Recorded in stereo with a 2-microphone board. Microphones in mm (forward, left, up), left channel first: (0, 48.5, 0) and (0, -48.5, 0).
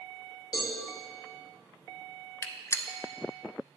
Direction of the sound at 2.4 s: 30° left (ahead or behind).